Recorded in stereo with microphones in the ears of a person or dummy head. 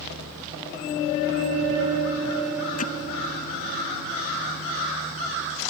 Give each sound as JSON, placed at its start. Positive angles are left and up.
{"t": 2.8, "sound": "hammering", "side_deg": 35}